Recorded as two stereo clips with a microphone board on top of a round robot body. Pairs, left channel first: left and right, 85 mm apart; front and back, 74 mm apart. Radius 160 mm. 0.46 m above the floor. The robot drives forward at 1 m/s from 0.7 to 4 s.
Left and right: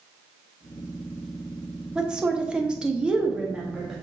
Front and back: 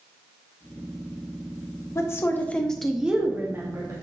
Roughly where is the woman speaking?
Ahead.